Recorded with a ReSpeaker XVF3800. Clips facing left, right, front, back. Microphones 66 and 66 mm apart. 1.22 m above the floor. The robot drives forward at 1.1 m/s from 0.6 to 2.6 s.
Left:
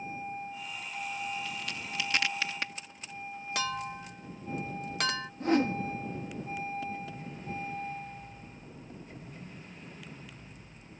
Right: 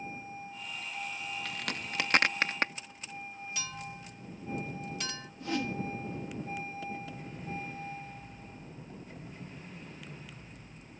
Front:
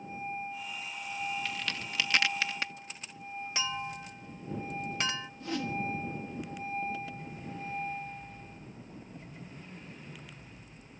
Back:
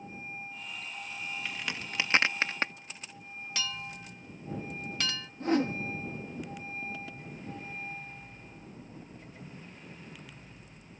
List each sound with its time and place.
1.4 s a crack: 105° right; by 2.7 s 135° right
3.5 s a clink: 65° left
5.4 s a whoosh: 135° left